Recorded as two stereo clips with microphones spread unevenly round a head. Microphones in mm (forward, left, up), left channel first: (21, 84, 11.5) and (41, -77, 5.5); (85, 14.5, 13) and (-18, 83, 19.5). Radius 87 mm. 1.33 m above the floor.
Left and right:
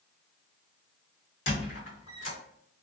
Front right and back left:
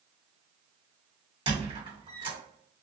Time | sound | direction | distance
1.5 | a squeak | 100° left | 1.6 m